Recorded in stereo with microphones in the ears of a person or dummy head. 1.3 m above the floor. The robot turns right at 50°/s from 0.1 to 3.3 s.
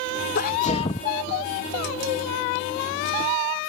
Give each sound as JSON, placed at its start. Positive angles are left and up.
{"t": 0.3, "sound": "a sneeze", "azimuth_deg": 125}